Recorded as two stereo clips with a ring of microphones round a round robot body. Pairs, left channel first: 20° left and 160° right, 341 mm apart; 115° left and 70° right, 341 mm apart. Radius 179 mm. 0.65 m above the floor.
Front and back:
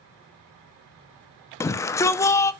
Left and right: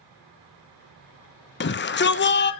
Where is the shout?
95° left, 0.7 m.